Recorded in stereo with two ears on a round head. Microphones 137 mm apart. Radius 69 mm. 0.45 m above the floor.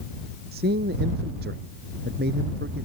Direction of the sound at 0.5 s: 75° right (ahead or behind).